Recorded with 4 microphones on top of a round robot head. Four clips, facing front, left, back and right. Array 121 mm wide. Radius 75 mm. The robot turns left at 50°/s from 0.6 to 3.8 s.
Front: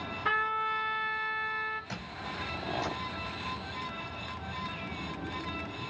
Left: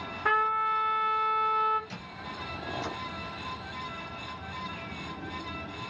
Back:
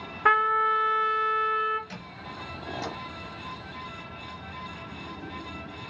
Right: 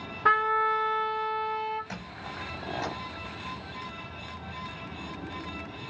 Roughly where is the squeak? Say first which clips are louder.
Right 1 dB, front 1 dB; ahead right.